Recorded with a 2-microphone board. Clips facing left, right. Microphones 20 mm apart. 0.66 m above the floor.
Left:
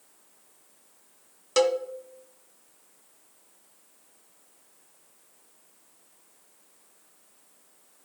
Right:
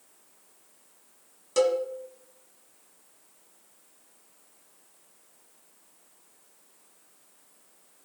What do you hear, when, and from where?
1.6 s a cowbell: 35° left (ahead or behind), 0.8 m